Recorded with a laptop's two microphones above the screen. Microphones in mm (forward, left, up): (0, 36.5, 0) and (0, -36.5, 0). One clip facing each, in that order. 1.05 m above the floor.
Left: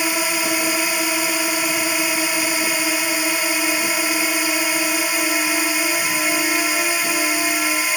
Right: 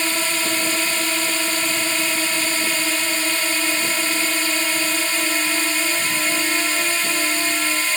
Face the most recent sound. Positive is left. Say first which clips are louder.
# left 2 dB
turn(degrees=10)  # may be behind; listen again after turning